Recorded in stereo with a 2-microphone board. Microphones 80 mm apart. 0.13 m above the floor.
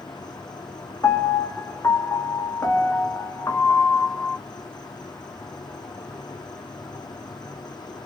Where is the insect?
60° left (ahead or behind), 1.2 m.